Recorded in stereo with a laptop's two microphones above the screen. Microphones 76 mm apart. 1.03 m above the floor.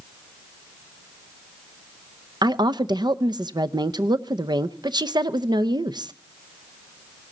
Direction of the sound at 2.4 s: 70° right (ahead or behind).